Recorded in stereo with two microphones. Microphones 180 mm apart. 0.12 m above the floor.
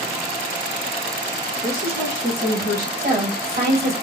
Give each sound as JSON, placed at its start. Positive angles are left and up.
{"t": 1.6, "sound": "a woman speaking", "side_deg": -60, "distance_m": 3.0}
{"t": 3.0, "sound": "a woman speaking", "side_deg": -60, "distance_m": 3.0}